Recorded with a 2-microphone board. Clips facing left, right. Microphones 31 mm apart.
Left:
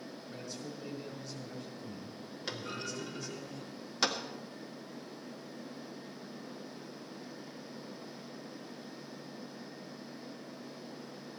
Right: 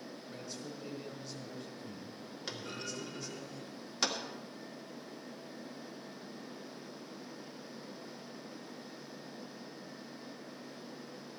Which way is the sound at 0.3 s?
5° right (ahead or behind).